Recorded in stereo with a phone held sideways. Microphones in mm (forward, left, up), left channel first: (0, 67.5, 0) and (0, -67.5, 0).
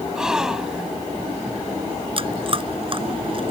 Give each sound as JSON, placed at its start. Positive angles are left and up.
{"t": 0.1, "sound": "a gasp", "side_deg": -5}
{"t": 2.2, "sound": "chewing", "side_deg": -40}